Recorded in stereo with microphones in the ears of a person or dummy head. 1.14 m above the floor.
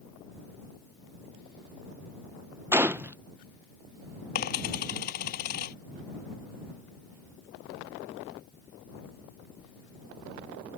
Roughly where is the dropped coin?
Left.